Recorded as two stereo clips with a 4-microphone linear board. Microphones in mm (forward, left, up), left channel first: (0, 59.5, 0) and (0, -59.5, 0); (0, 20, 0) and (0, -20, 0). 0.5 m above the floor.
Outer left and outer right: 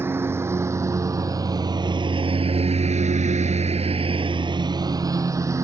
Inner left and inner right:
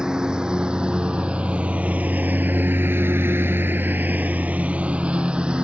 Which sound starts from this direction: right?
A lawn mower, at 0.0 s.